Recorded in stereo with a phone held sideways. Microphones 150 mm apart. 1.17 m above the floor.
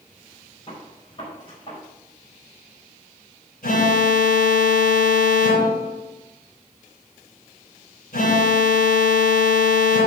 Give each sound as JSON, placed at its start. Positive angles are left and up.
{"t": 0.7, "sound": "a gunshot", "side_deg": 40, "distance_m": 4.5}
{"t": 3.6, "sound": "an alarm", "side_deg": 85, "distance_m": 4.0}